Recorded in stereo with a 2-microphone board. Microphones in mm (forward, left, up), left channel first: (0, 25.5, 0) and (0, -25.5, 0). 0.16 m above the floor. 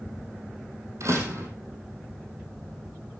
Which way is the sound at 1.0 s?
70° right (ahead or behind).